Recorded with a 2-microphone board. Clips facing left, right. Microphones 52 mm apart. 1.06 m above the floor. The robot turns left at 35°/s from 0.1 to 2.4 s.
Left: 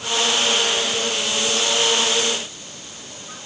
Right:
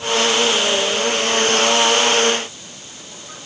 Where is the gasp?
No gasp in this recording.